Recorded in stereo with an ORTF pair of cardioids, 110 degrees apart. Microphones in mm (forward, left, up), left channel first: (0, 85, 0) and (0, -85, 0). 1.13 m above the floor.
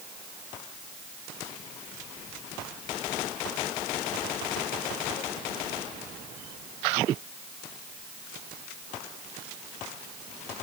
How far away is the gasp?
I don't hear a gasp.